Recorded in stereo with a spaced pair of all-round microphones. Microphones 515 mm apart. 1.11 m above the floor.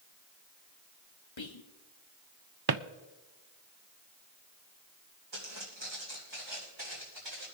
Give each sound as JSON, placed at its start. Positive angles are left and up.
{"t": 1.4, "sound": "whispering", "side_deg": 60, "distance_m": 1.1}
{"t": 2.7, "sound": "a drawer", "side_deg": -45, "distance_m": 0.5}
{"t": 5.3, "sound": "footsteps", "side_deg": -55, "distance_m": 4.0}